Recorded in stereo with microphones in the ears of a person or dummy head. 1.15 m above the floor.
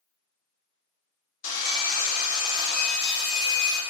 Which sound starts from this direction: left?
Sawing, at 1.4 s.